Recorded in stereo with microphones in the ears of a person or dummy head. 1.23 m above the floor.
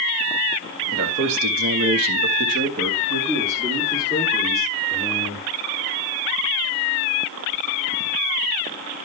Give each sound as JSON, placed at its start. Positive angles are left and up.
{"t": 0.9, "sound": "a man speaking", "side_deg": -65, "distance_m": 2.0}